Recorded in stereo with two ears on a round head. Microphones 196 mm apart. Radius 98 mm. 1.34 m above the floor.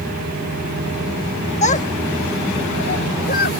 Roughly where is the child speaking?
Left.